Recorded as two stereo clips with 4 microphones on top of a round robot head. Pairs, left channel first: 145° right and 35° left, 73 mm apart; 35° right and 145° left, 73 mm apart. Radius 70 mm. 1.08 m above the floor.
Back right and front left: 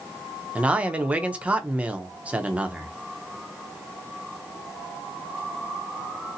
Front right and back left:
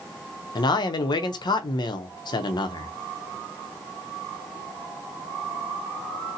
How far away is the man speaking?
About 0.6 m.